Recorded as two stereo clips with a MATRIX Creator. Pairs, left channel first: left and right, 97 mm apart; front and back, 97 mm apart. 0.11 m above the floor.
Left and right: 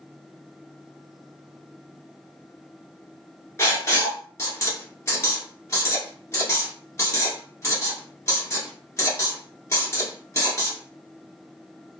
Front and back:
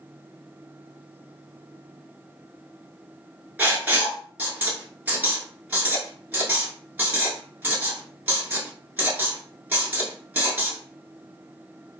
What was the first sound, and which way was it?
Writing, 125° left.